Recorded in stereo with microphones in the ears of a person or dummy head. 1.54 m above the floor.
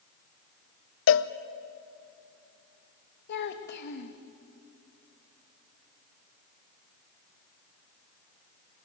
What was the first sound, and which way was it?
A cowbell, 65° left (ahead or behind).